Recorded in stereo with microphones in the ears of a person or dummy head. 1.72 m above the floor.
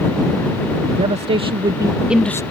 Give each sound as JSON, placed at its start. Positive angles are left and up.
{"t": 0.9, "sound": "a man speaking", "side_deg": -35}